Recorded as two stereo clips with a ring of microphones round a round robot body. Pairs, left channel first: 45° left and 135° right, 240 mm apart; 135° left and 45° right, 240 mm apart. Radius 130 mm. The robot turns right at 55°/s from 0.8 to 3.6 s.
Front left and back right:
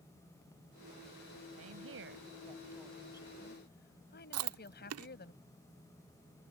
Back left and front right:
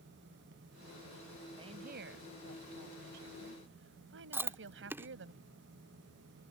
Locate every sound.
1.6 s a woman speaking: 115° right; by 5.3 s 5° right
4.3 s chewing: 125° right